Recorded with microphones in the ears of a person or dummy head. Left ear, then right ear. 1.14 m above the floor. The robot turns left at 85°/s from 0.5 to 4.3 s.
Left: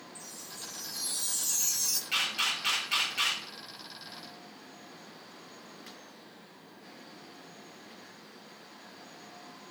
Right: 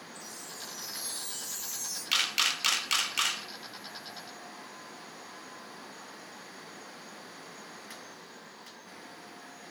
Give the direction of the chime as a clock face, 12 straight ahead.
6 o'clock.